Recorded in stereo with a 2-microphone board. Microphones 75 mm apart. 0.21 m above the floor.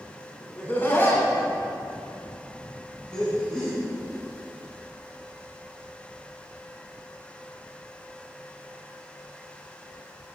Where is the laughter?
25° left (ahead or behind), 1.6 m; by 3.8 s 10° left (ahead or behind), 1.9 m.